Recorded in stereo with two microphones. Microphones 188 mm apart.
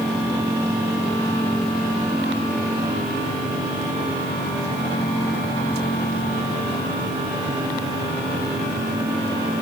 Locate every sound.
Only background noise.